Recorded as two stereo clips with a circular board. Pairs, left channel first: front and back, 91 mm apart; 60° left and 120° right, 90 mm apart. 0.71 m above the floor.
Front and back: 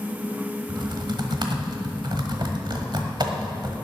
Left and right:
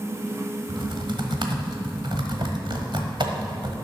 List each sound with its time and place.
0.7 s typing on a keyboard: 145° right, 1.3 m